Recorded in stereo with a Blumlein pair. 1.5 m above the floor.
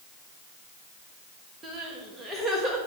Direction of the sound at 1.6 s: 10° right.